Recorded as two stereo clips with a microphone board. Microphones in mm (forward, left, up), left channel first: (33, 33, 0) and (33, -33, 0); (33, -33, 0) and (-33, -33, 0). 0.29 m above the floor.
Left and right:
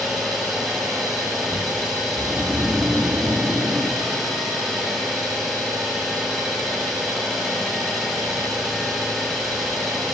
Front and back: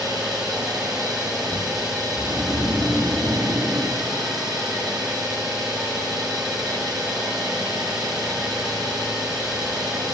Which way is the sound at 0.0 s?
Straight behind.